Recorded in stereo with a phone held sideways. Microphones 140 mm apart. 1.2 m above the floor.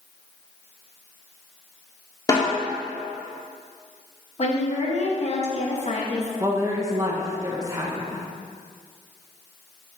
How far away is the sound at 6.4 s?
About 0.7 m.